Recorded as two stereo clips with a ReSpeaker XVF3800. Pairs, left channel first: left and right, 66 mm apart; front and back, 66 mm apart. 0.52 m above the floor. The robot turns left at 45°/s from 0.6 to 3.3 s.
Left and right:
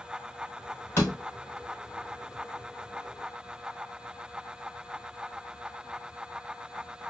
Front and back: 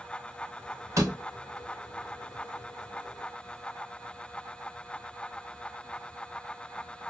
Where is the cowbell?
No cowbell in this recording.